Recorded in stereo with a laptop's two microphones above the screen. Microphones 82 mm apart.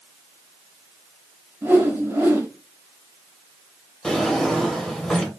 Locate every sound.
1.6 s a whoosh: 25° right (ahead or behind), 2 m
4.0 s a drawer: 5° left (ahead or behind), 1.7 m